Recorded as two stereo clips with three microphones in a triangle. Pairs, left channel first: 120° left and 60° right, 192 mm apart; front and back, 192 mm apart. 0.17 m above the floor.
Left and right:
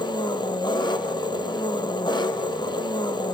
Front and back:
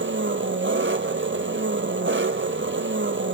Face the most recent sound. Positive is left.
turn(degrees=-175)